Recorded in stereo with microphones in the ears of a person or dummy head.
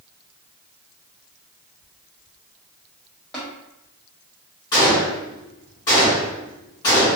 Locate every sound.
3.3 s tapping: 5° left (ahead or behind), 1.1 m
4.7 s a gunshot: 25° left (ahead or behind), 1.6 m